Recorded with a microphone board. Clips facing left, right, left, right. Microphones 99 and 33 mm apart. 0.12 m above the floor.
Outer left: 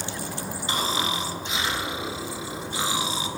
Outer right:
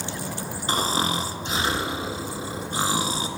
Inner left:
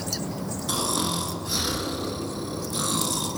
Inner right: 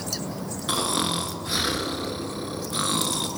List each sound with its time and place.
0.7 s snoring: 40° right (ahead or behind), 1.1 m